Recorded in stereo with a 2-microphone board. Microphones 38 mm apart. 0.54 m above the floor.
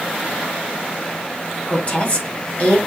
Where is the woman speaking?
40° left (ahead or behind), 3.5 m.